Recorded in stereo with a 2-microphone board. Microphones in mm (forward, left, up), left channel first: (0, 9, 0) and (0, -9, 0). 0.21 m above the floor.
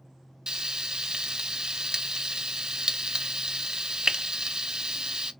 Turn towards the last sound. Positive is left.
turn(degrees=-45)  # may be behind; listen again after turning